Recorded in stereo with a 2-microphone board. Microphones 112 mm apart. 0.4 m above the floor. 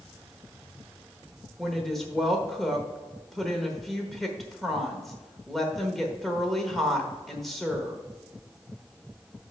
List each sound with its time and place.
1.6 s a woman speaking: 5° left (ahead or behind), 1.1 m